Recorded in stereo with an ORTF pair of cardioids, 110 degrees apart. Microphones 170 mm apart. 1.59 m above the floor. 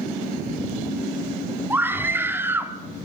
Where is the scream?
10° right, 3.5 m; by 2.8 s 15° right, 3 m.